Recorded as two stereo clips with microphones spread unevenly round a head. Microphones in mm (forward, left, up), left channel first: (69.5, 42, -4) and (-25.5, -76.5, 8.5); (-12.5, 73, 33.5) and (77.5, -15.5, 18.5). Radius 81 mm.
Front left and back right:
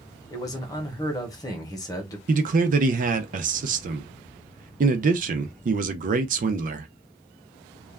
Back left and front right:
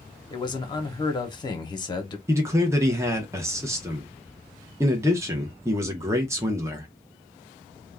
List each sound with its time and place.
0.3 s a man speaking: 95° left, 0.8 m
2.3 s a man speaking: 105° right, 0.6 m